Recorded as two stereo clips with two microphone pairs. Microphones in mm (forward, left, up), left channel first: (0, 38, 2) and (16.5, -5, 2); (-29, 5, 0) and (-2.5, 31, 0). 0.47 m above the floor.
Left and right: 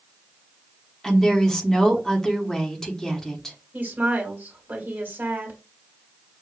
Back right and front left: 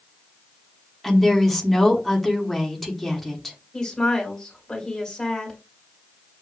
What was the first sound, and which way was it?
A woman speaking, 155° left.